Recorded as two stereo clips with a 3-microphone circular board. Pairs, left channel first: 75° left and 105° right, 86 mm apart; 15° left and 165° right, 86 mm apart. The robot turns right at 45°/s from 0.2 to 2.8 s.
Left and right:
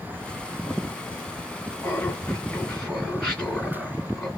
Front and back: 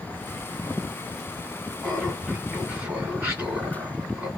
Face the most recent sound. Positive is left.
turn(degrees=150)